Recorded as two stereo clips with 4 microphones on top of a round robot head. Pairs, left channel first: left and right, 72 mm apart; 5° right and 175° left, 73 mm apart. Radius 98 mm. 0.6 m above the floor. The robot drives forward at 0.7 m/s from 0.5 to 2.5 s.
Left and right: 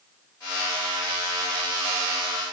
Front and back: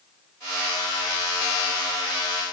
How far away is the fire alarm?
No fire alarm in this recording.